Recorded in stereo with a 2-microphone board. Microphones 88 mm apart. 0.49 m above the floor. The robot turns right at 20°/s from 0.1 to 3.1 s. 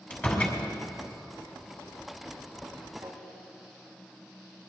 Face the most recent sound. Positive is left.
turn(degrees=-65)  # may be behind; listen again after turning